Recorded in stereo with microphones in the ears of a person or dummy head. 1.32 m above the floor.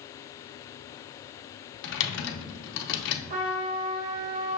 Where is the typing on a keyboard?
65° left (ahead or behind), 0.9 m.